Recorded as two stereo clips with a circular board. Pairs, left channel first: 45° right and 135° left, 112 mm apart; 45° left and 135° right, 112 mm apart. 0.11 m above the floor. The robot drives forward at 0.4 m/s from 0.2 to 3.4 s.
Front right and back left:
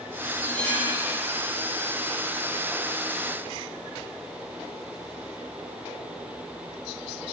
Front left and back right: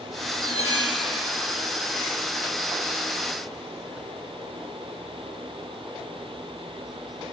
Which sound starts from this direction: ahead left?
Cutlery clinking, at 0.4 s.